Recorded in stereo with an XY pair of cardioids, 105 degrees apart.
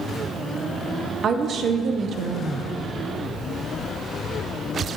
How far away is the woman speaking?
About 0.6 m.